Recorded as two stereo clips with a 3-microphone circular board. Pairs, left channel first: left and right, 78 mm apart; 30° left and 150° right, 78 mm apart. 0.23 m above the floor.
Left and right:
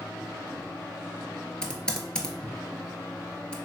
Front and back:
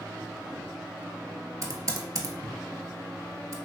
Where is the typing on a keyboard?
170° left, 0.5 m.